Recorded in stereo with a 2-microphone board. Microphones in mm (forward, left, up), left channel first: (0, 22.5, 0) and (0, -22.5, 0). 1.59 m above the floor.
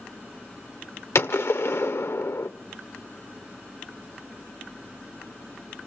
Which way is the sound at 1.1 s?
75° left (ahead or behind).